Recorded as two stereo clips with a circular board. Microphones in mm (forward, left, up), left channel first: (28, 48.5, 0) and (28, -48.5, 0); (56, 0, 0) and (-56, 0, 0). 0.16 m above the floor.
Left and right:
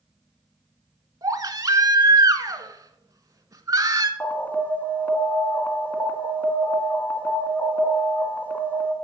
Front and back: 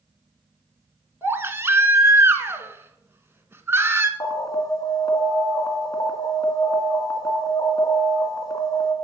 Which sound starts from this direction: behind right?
A baby crying, at 1.2 s.